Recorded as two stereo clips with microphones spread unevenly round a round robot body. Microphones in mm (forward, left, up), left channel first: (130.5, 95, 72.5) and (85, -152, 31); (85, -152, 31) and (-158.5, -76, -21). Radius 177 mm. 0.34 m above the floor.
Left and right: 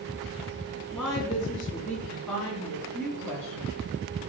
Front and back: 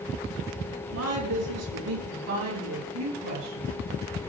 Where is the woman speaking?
170° left, 5 m; by 3.8 s 165° left, 8.5 m.